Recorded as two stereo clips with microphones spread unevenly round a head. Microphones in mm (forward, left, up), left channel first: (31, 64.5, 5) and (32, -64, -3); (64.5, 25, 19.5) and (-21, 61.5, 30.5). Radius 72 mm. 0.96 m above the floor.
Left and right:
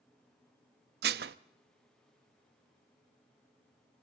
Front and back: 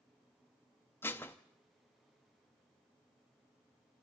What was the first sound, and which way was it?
Dishes clattering, 100° right.